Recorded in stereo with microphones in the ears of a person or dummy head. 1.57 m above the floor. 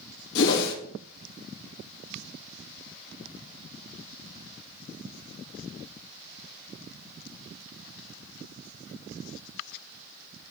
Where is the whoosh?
75° left (ahead or behind), 2.5 m.